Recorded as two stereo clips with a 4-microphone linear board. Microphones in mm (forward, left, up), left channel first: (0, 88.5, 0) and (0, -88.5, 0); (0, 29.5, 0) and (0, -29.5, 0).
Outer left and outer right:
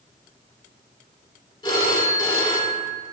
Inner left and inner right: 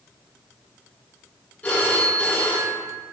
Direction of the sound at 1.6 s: 25° left (ahead or behind).